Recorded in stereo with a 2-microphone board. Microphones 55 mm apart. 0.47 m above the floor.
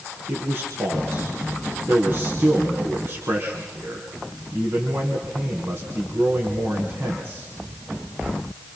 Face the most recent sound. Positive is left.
turn(degrees=-40)  # may be behind; listen again after turning